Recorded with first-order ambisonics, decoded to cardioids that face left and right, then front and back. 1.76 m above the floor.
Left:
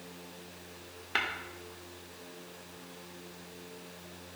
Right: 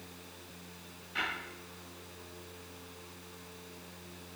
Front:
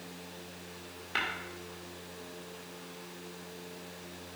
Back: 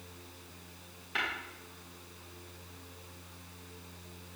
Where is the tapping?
75° left, 1.6 m.